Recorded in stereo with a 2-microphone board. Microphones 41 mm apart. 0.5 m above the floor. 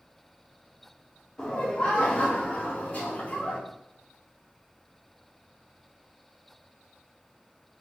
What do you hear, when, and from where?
1.4 s laughter: 15° left (ahead or behind), 0.9 m; by 3.6 s 35° left (ahead or behind), 1.9 m